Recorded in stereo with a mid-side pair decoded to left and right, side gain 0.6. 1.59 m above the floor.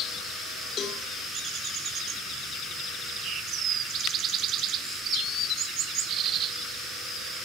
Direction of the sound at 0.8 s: 45° left.